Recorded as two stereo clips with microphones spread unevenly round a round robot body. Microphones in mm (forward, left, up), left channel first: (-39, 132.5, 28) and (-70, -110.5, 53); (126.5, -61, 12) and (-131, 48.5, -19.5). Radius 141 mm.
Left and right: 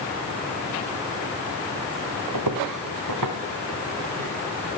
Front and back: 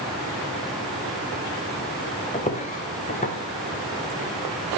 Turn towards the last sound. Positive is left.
turn(degrees=-85)